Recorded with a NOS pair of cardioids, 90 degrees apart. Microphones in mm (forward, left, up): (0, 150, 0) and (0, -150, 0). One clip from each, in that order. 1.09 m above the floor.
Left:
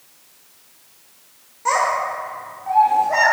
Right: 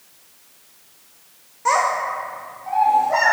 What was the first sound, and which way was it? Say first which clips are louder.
A child speaking: even; 10° right.